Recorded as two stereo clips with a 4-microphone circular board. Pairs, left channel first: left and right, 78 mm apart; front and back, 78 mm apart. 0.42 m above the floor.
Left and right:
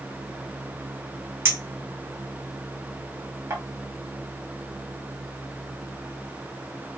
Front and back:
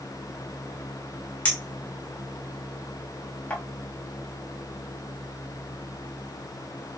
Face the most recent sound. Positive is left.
turn(degrees=-60)